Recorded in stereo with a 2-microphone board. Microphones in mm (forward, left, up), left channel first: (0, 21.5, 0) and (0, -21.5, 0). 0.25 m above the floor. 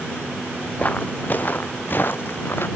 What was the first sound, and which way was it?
Footsteps, 30° left (ahead or behind).